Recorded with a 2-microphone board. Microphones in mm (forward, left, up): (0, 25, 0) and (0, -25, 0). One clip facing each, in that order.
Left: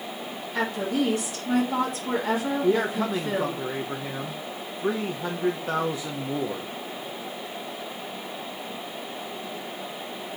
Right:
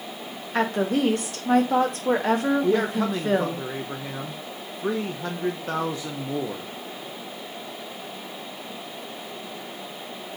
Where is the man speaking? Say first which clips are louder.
Right 1 dB; centre (ahead or behind), 0.8 m.